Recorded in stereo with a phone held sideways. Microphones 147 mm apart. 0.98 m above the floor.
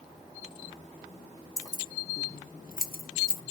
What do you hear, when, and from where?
1.6 s keys jangling: 20° left (ahead or behind), 0.8 m; by 3.4 s 75° left (ahead or behind), 0.9 m